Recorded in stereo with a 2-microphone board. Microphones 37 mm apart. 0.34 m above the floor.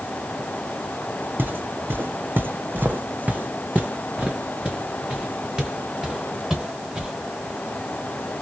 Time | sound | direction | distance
1.4 | footsteps | 60° right (ahead or behind) | 0.9 m